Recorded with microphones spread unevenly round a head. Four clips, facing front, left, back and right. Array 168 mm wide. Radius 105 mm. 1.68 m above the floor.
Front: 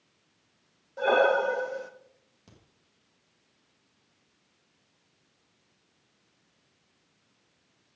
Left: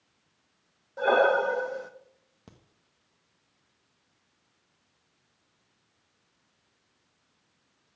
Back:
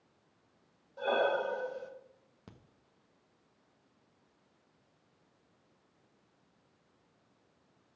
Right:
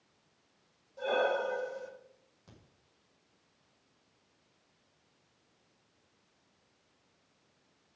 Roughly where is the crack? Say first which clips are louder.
Left 5 dB, back 2 dB; left.